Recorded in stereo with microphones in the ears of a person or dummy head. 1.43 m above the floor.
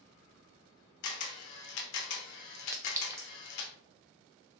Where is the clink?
15° right (ahead or behind), 0.5 m.